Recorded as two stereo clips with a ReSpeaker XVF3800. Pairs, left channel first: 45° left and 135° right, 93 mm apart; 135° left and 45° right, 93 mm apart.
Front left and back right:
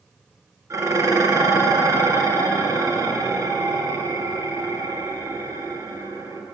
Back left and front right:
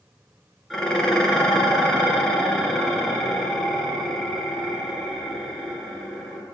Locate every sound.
0.7 s dishes clattering: 145° right, 1.1 m